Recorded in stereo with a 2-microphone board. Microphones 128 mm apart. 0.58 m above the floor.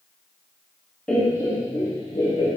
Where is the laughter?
10° left (ahead or behind), 1.4 m; by 2.5 s 50° left (ahead or behind), 2.5 m.